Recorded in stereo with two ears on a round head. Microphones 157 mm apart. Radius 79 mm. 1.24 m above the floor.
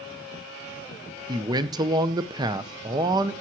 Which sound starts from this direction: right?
A man speaking, at 1.3 s.